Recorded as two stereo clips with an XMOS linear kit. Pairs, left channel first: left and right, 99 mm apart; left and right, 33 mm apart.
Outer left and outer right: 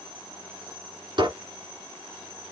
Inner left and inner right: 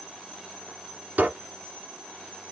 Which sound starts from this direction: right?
A squeak, at 1.2 s.